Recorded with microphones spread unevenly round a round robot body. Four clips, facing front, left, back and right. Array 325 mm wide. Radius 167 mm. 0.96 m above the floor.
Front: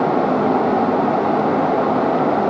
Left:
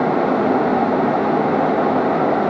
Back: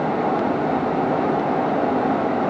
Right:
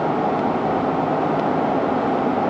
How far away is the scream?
I don't hear a scream.